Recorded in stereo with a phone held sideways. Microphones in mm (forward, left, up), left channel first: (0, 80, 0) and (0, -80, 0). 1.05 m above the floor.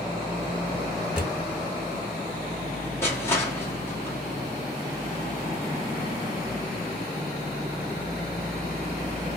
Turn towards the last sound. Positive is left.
turn(degrees=15)  # may be behind; listen again after turning